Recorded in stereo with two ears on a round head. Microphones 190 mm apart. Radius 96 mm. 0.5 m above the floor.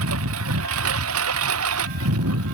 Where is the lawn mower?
80° right; by 2.5 s 85° right.